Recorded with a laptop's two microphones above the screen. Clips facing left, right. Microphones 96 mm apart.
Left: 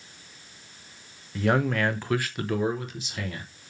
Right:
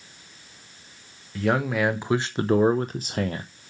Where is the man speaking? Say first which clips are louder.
Right 1 dB; centre (ahead or behind), 0.9 m; by 3.5 s 40° right (ahead or behind), 0.9 m.